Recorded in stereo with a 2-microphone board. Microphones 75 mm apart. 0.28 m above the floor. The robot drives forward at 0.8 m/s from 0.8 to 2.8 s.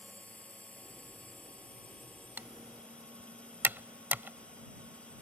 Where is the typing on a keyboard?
25° right (ahead or behind); by 5.2 s 30° right (ahead or behind).